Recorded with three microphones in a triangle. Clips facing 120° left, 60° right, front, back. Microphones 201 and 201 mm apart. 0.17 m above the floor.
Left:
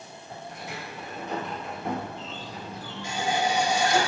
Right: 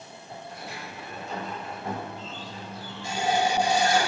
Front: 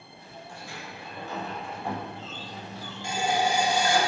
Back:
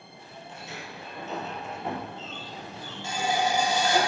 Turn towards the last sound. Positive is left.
turn(degrees=-70)